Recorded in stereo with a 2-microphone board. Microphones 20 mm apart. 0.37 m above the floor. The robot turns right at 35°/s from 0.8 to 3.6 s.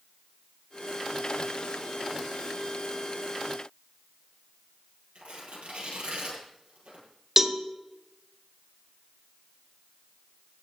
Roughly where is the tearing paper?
Right.